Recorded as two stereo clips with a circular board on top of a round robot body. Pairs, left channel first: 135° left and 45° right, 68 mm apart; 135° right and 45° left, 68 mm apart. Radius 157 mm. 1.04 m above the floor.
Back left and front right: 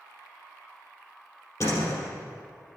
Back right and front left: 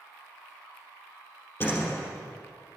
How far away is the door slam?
About 3.5 m.